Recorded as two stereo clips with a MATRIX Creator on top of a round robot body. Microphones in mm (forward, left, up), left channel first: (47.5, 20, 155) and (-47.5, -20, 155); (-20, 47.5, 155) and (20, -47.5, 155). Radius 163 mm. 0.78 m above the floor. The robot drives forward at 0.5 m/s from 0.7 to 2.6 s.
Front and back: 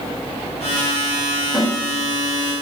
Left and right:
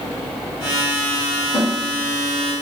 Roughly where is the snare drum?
Behind left.